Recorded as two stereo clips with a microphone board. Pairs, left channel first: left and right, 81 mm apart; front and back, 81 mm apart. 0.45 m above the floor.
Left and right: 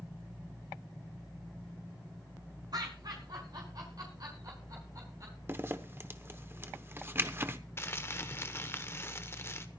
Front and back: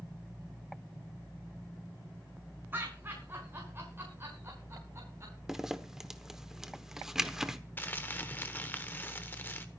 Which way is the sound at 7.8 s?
50° left.